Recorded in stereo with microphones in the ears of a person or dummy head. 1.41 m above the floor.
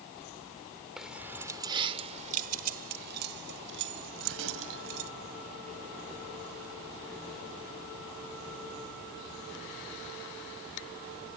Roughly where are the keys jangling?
Centre.